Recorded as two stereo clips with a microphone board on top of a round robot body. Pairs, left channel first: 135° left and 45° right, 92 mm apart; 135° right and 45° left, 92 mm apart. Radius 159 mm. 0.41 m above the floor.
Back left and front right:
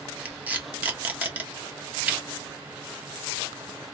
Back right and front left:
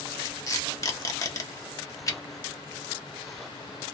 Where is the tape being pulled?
110° right, 1.2 m.